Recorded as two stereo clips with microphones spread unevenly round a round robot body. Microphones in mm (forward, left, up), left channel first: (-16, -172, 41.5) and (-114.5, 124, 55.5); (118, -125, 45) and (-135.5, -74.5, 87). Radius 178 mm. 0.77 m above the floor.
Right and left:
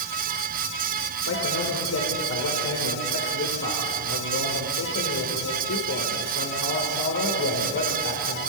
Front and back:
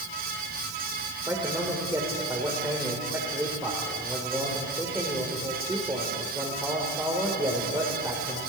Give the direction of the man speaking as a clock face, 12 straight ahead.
4 o'clock.